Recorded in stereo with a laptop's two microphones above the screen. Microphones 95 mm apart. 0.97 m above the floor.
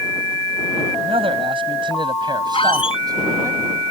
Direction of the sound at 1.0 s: 75° right (ahead or behind).